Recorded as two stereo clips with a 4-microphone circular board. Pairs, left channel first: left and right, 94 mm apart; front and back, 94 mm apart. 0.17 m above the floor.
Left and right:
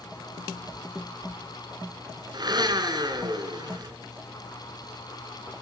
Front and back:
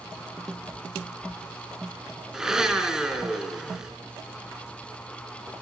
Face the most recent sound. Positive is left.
turn(degrees=-100)